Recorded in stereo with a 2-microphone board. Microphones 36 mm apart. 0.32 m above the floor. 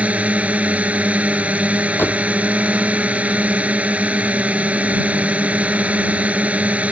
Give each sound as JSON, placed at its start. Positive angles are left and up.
{"t": 0.0, "sound": "a drone", "side_deg": -40}
{"t": 2.0, "sound": "a door slam", "side_deg": 75}